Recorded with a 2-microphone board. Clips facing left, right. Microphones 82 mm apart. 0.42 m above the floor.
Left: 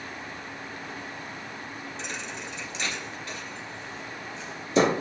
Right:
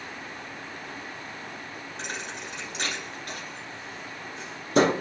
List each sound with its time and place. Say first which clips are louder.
2.0 s a thud: right 2 dB; 55° right (ahead or behind), 1.4 m